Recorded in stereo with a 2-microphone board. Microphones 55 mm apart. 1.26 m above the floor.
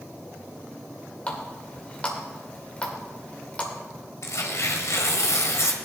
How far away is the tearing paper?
About 2.0 m.